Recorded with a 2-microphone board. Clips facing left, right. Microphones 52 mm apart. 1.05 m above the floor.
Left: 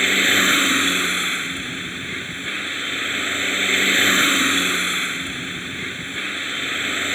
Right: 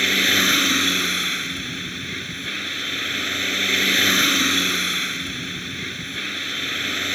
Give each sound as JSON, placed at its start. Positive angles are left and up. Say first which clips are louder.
{"t": 0.0, "sound": "a vehicle", "louder": "left 2 dB", "side_deg": 15}